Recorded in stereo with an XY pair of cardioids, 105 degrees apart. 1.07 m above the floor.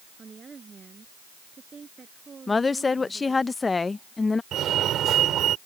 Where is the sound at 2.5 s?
25° left.